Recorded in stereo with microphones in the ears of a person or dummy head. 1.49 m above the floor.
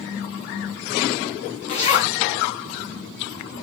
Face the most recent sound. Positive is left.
turn(degrees=20)  # may be behind; listen again after turning